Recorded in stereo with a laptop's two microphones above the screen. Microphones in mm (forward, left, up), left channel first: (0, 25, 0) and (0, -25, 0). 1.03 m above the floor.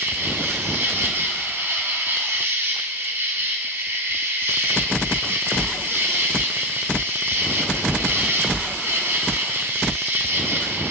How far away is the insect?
About 1.6 m.